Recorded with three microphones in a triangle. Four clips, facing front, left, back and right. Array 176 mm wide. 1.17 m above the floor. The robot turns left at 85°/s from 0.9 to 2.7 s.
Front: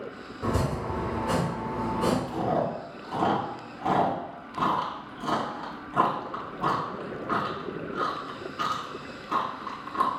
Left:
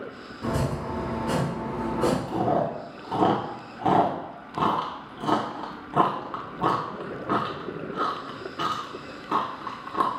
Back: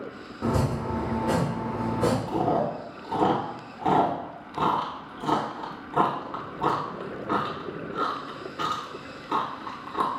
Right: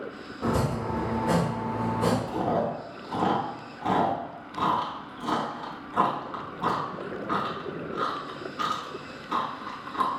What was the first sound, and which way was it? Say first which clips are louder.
Chopping: right 1 dB, back 2 dB; 155° right.